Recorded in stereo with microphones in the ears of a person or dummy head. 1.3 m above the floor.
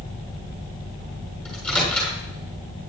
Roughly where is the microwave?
Centre.